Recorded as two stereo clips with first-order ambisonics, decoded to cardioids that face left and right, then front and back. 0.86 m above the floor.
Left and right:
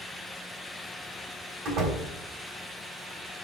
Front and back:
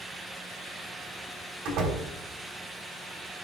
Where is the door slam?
145° right, 3.5 m.